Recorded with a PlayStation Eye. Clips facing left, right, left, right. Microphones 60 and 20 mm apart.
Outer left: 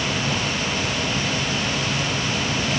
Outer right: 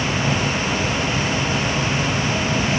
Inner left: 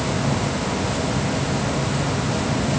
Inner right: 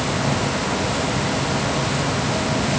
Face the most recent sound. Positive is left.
No sound to turn to.